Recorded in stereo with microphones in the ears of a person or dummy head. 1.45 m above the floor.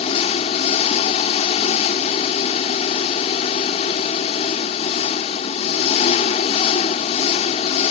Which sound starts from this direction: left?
An engine running, at 0.0 s.